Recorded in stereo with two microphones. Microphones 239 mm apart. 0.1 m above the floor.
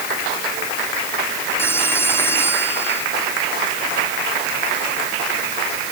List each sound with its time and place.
1.6 s a phone ringing: 10° left (ahead or behind)